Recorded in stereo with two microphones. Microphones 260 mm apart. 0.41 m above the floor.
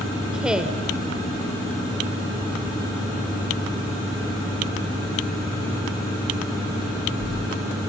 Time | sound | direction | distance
0.3 | a woman speaking | 5° right (ahead or behind) | 1.6 m